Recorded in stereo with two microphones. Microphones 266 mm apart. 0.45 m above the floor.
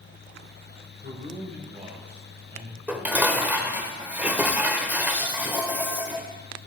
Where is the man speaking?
35° right (ahead or behind), 2 m; by 2.8 s 20° right (ahead or behind), 3 m.